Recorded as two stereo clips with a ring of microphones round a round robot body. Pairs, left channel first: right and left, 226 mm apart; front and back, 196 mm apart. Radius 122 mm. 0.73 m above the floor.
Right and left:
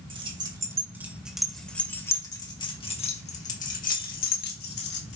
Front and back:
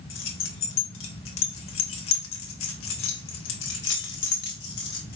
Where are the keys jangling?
20° left, 2 m; by 5.2 s 50° right, 3 m.